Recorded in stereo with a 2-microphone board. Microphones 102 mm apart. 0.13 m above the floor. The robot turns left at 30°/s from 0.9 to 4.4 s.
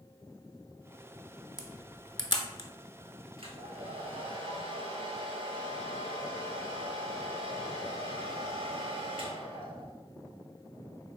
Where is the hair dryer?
70° right, 1.0 m; by 9.9 s 105° right, 1.0 m.